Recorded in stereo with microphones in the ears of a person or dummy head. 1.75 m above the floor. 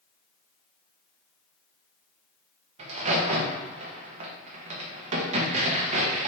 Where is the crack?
40° right (ahead or behind), 0.7 m.